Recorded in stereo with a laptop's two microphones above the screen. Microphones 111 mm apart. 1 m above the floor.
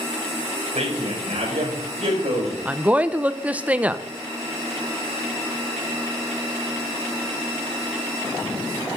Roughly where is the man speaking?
Right.